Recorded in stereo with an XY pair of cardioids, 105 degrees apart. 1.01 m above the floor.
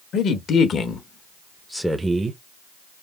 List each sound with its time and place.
0.1 s a man speaking: 65° left, 1.5 m; by 2.4 s 35° right, 0.8 m